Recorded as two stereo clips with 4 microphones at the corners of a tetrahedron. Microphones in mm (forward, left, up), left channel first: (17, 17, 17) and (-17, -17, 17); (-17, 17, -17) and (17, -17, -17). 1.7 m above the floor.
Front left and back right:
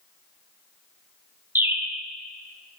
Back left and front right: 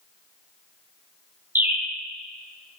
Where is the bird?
90° right, 0.9 m.